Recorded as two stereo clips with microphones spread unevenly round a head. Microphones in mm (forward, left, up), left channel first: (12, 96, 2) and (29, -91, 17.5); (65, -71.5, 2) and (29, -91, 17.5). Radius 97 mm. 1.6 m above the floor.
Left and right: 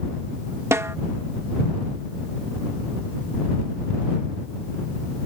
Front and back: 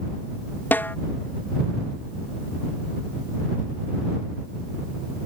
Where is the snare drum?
15° right.